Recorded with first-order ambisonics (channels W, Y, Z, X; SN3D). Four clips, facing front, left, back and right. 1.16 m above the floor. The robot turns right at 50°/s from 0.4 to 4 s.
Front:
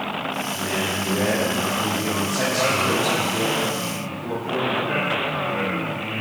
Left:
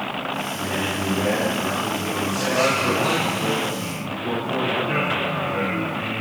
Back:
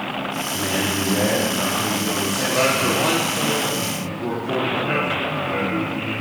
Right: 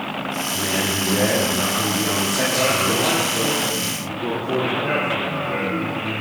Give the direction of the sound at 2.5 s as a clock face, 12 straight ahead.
7 o'clock.